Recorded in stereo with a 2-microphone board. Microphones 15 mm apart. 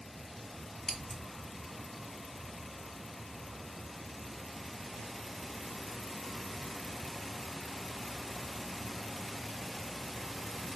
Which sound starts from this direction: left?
Scissors, at 0.9 s.